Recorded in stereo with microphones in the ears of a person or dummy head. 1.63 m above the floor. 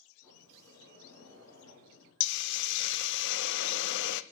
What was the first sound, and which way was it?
A sliding door, 20° left (ahead or behind).